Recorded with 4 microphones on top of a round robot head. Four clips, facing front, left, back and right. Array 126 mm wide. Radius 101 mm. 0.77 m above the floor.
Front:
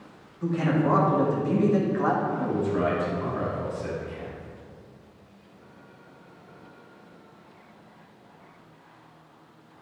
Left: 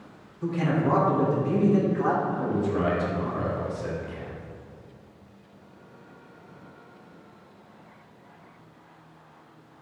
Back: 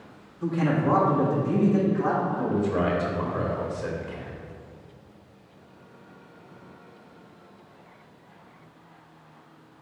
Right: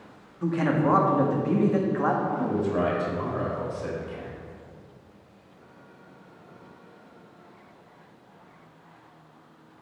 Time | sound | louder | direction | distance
0.4 | a man speaking | right 2 dB, even | 95° right | 2.0 m
2.3 | a man speaking | right 1 dB, back 1 dB | 135° right | 2.5 m